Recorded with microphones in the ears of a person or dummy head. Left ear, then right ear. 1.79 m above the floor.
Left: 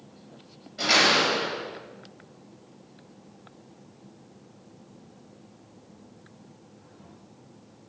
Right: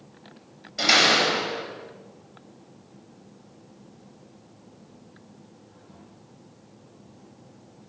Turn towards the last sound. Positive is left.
turn(degrees=-25)  # may be behind; listen again after turning